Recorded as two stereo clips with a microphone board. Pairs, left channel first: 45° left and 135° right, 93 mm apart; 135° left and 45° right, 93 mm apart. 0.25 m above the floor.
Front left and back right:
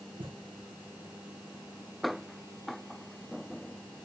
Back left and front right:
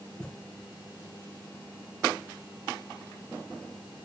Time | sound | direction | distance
0.2 | a thud | 145° right | 1.4 m